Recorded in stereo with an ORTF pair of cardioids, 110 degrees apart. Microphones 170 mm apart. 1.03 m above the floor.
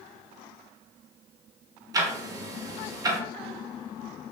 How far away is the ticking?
About 0.6 m.